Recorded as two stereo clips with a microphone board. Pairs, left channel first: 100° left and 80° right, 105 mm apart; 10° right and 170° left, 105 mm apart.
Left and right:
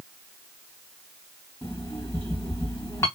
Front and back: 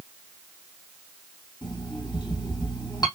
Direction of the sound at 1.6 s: 40° left.